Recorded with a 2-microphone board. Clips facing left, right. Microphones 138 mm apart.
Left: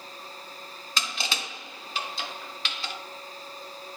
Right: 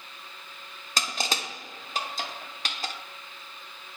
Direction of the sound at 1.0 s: 45° right (ahead or behind).